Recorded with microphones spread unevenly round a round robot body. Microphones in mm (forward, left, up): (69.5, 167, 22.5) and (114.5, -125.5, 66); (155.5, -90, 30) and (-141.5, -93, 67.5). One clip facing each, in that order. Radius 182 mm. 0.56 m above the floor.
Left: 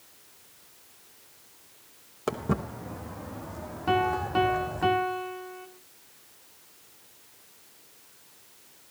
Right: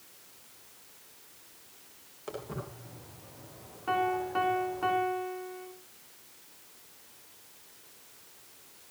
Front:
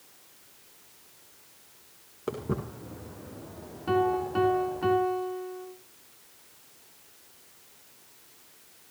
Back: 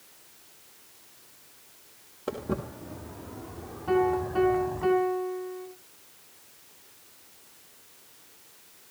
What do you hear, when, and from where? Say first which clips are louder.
2.3 s footsteps: left 10 dB, even; 85° left, 2.5 m; by 4.9 s 125° left, 1.9 m
3.9 s a piano: left 4 dB, back 1 dB; 60° left, 2.5 m